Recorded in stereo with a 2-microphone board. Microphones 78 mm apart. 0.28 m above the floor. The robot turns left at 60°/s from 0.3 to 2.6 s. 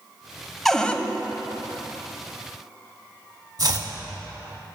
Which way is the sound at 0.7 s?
5° left (ahead or behind).